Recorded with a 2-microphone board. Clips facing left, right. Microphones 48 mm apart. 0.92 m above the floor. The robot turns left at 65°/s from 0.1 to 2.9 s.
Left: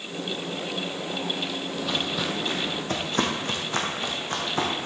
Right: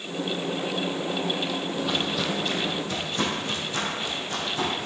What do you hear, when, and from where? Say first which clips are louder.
1.7 s footsteps: even; 10° right (ahead or behind), 1.4 m; by 4.9 s 45° left (ahead or behind), 3 m